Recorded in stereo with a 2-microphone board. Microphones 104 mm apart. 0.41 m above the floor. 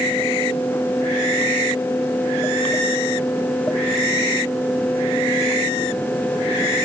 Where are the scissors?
No scissors in this recording.